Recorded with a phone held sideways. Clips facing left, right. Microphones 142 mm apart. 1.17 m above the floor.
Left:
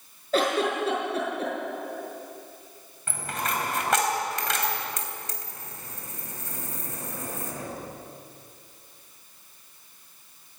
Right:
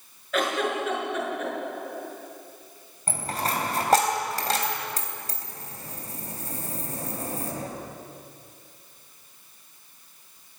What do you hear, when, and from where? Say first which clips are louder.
0.3 s a giggle: left 2 dB; 35° left (ahead or behind), 6 m
3.1 s a dropped coin: right 2 dB; 35° right (ahead or behind), 3 m